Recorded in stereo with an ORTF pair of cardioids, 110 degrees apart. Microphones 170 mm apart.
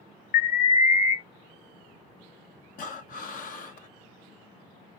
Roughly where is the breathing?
Ahead left.